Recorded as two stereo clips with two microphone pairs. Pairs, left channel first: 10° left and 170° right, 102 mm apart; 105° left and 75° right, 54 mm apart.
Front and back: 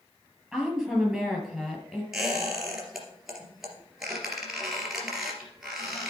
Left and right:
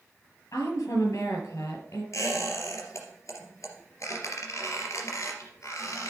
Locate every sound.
0.5 s a woman speaking: 100° left, 4.5 m
2.1 s a squeak: 105° left, 3 m